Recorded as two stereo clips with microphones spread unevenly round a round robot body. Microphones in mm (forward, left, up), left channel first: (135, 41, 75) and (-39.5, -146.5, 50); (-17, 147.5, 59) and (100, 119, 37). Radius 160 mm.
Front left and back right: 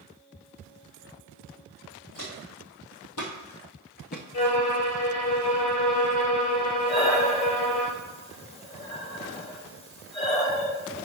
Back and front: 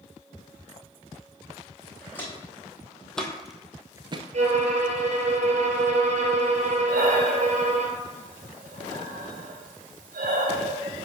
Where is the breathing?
20° right, 1.0 m.